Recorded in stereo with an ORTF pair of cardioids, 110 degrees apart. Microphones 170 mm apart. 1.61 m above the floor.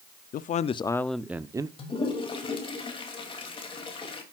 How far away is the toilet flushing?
About 3 m.